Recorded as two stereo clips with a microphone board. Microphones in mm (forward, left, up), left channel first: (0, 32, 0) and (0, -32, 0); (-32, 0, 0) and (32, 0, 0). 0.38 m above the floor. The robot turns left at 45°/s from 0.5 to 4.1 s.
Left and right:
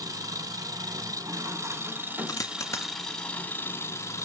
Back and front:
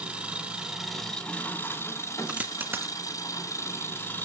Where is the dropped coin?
70° left, 0.5 m; by 2.9 s 40° left, 0.5 m.